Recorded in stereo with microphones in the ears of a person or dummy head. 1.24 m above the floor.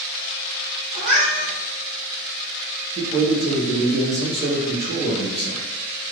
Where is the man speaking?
35° right (ahead or behind), 0.8 m.